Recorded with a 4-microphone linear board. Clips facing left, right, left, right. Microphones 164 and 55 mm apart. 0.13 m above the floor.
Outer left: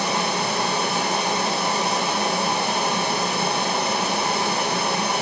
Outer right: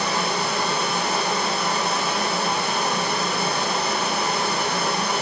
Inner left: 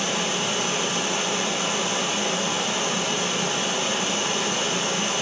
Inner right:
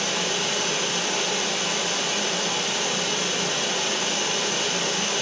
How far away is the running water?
About 5 m.